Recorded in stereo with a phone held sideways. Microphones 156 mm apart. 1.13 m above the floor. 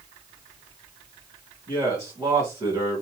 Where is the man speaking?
20° right (ahead or behind), 1.7 m.